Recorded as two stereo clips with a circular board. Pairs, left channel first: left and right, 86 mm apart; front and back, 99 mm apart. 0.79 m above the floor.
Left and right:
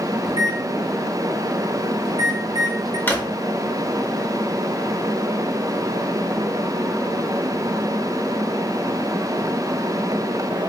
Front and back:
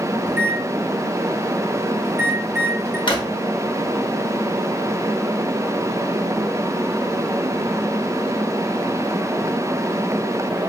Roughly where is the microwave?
Behind right.